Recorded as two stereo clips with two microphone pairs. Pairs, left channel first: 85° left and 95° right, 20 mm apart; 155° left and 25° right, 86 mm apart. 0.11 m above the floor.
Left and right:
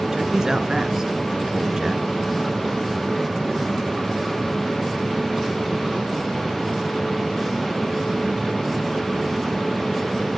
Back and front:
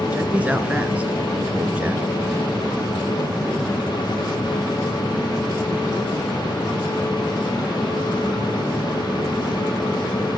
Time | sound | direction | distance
0.1 | a man speaking | 85° right | 1.3 m